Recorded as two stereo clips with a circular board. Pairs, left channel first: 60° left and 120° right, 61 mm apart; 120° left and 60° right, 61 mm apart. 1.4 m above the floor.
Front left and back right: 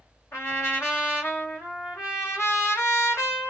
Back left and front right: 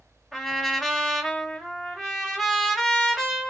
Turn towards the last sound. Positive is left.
turn(degrees=30)